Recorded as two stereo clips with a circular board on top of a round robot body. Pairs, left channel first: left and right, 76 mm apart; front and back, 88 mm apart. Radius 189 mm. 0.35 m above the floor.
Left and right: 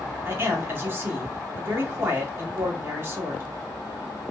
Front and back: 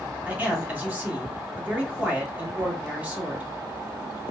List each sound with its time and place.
0.2 s a man speaking: 120° right, 1.4 m